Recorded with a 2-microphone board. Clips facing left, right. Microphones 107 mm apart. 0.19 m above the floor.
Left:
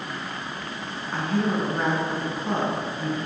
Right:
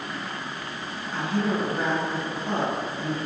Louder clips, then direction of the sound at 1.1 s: Left 1 dB; 40° left (ahead or behind).